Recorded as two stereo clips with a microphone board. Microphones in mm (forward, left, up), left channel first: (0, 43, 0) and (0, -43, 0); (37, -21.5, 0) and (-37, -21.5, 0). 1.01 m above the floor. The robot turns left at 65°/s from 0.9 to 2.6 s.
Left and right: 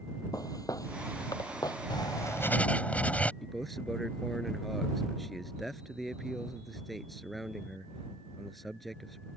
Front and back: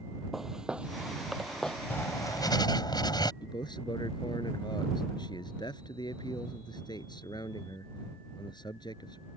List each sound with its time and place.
0.3 s footsteps: 95° left; by 1.8 s 75° left
1.9 s writing: 60° left; by 3.3 s 15° left
3.4 s a man speaking: straight ahead